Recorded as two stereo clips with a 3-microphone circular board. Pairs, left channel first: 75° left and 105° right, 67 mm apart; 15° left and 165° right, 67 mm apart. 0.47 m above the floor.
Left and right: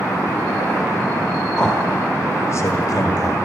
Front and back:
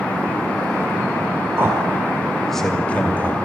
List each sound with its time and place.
1.6 s a man speaking: 150° left, 1.6 m; by 3.4 s 70° left, 2 m